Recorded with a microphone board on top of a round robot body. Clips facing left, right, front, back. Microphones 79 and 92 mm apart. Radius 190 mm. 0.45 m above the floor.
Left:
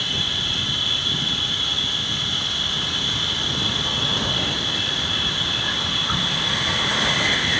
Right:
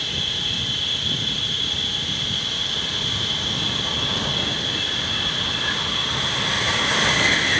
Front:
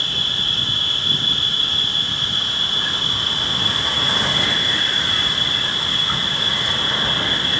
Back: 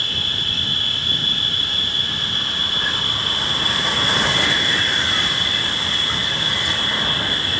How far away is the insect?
About 8 m.